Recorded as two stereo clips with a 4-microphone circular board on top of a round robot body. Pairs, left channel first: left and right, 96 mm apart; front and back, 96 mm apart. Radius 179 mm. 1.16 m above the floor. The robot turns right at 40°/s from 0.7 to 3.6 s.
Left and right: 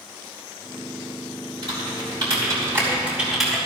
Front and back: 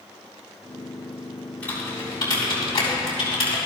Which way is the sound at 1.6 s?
75° right.